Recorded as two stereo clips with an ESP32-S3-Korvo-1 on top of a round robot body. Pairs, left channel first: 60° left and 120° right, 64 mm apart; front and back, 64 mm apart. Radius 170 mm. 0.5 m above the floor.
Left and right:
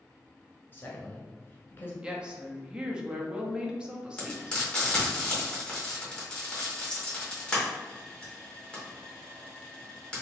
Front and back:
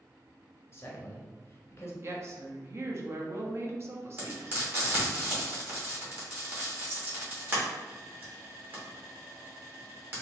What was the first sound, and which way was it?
A man speaking, 25° left.